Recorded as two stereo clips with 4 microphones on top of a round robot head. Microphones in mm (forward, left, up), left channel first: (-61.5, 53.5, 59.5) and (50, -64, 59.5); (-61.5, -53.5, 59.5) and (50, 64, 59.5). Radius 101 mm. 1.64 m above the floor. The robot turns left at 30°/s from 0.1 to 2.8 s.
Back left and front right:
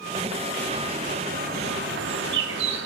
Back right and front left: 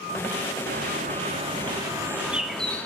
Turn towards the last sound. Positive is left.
turn(degrees=-50)